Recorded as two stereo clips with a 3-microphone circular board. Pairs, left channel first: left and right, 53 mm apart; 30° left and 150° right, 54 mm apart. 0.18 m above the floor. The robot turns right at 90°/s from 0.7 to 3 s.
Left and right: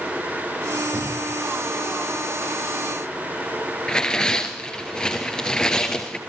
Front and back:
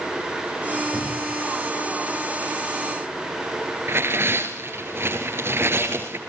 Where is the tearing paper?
170° left, 3.5 m.